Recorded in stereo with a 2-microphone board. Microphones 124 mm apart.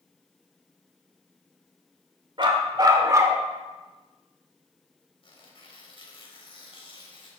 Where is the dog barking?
40° right (ahead or behind), 1.9 m; by 3.4 s 20° right (ahead or behind), 1.6 m.